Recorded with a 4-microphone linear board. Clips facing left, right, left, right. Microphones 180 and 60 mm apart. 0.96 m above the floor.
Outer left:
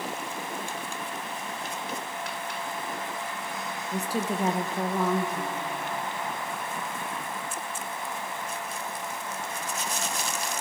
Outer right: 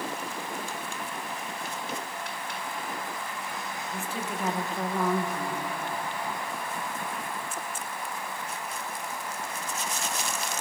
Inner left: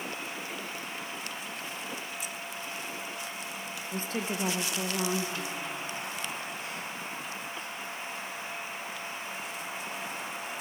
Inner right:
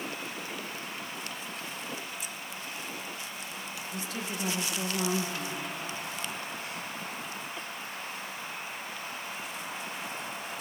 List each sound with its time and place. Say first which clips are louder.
3.9 s a woman speaking: outer left 7 dB, inner left 5 dB; 40° left (ahead or behind), 0.9 m; by 5.7 s 5° right (ahead or behind), 1.6 m